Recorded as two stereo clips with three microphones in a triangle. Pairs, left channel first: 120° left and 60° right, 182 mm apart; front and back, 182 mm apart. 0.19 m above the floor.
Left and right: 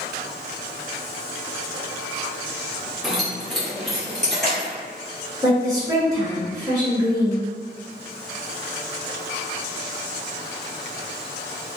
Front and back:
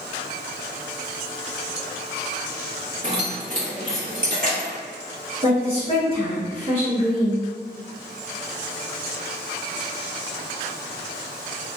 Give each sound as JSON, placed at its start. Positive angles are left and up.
{"t": 3.0, "sound": "keys jangling", "azimuth_deg": -150, "distance_m": 1.1}
{"t": 5.4, "sound": "a woman speaking", "azimuth_deg": -125, "distance_m": 1.8}